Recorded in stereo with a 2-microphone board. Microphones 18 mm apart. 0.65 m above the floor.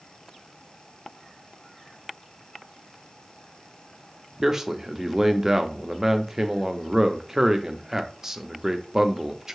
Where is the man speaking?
20° right (ahead or behind), 0.5 m.